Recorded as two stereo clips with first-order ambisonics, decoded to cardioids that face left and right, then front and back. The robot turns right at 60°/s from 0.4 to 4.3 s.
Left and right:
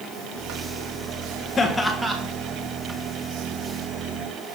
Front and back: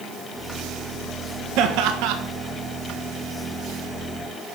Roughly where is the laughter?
Behind.